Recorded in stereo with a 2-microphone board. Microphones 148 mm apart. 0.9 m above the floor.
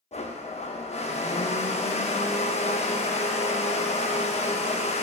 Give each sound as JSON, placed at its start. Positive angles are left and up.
{"t": 0.1, "sound": "a blender", "side_deg": 45, "distance_m": 0.6}